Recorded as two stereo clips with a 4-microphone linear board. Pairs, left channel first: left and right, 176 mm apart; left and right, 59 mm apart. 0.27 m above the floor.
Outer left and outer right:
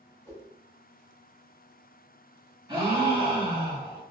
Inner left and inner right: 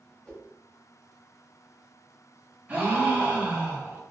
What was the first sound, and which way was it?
A whoosh, 15° left (ahead or behind).